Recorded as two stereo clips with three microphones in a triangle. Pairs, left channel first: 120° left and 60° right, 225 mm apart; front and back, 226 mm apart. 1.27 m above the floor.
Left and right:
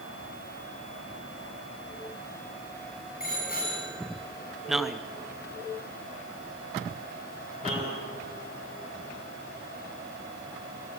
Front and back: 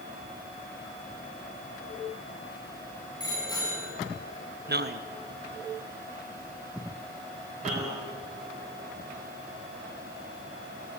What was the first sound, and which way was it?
A bicycle bell, 70° left.